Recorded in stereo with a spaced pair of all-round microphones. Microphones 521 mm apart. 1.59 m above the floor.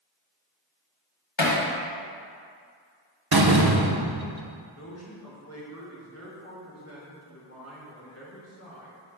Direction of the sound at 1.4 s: 65° left (ahead or behind).